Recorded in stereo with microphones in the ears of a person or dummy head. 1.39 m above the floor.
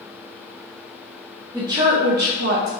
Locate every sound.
1.5 s a woman speaking: 20° right (ahead or behind), 0.6 m; by 2.7 s 85° right, 0.7 m